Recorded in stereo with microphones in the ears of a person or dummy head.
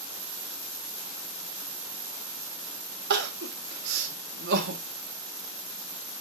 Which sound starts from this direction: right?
Crying, at 3.1 s.